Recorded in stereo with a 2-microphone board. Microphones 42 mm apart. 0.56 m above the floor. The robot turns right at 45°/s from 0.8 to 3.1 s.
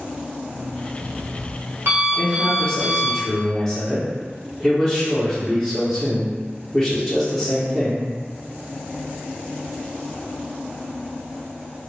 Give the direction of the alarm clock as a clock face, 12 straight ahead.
4 o'clock.